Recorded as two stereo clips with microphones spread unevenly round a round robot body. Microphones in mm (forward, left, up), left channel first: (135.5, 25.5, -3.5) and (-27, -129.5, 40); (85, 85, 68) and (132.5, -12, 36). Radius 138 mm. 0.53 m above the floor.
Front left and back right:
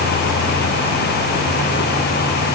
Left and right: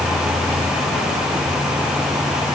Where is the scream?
No scream in this recording.